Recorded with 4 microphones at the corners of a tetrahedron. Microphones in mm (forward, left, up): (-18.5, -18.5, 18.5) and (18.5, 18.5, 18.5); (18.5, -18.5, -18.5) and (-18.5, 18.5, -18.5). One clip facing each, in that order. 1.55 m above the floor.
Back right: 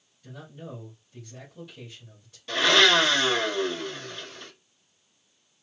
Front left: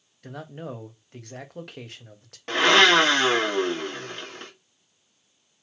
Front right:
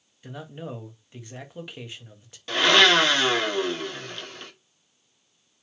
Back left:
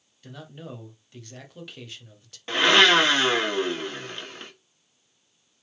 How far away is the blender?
About 1.6 m.